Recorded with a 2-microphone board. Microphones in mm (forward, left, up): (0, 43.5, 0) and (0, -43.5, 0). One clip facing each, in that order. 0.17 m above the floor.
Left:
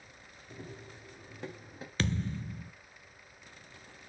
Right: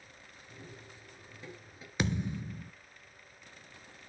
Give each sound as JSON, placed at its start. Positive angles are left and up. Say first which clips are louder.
{"t": 0.5, "sound": "running footsteps", "louder": "left 5 dB", "side_deg": 70, "distance_m": 4.0}
{"t": 2.0, "sound": "a thud", "louder": "right 1 dB", "side_deg": -15, "distance_m": 0.7}